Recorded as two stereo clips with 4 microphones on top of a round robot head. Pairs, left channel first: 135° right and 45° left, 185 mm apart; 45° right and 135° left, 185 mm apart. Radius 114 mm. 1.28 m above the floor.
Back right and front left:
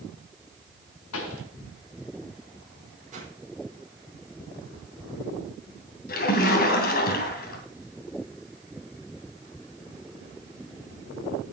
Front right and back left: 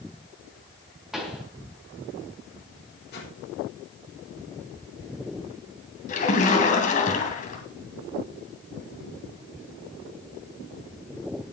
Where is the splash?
95° right, 3 m.